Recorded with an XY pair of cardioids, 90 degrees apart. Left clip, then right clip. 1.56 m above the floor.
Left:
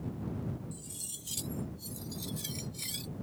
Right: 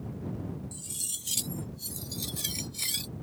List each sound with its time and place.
0.7 s cutlery clinking: 60° right